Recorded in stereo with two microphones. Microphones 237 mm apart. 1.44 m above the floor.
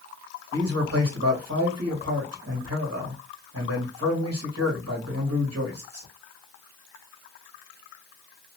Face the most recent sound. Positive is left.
turn(degrees=-70)  # may be behind; listen again after turning